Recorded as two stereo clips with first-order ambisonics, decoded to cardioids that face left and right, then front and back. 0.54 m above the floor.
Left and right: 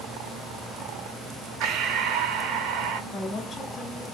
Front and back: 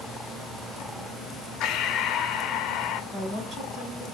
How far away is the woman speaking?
About 1.5 m.